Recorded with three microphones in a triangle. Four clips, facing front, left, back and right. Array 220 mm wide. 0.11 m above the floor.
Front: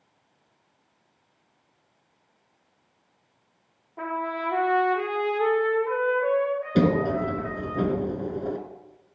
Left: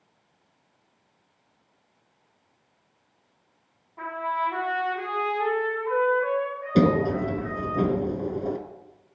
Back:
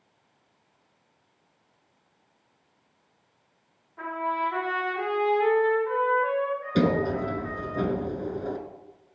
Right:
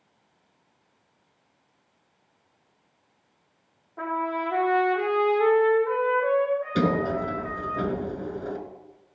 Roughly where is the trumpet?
Ahead right.